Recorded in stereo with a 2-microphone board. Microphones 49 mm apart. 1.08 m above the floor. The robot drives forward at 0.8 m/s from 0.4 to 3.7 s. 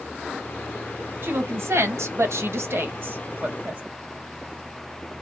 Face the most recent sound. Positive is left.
turn(degrees=-35)  # may be behind; listen again after turning